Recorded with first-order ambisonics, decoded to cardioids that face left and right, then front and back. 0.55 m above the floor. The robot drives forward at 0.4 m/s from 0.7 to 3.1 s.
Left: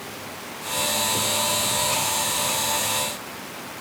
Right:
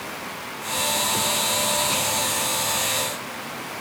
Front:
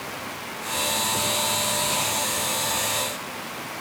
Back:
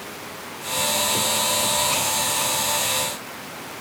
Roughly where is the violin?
No violin in this recording.